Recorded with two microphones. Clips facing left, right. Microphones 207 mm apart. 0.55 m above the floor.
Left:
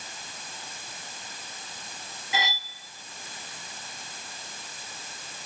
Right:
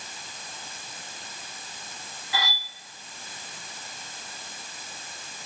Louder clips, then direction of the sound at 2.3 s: Left 1 dB; 20° left (ahead or behind).